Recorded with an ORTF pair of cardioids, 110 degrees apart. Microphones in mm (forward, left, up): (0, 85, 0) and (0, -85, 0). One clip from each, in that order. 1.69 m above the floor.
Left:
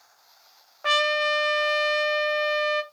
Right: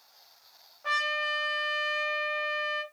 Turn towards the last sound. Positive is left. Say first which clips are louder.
# left 6 dB
turn(degrees=60)